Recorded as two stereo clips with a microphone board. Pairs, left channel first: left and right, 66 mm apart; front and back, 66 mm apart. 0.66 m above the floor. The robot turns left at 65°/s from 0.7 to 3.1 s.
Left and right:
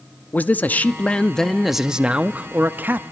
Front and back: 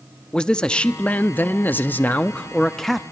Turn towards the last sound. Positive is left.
turn(degrees=-95)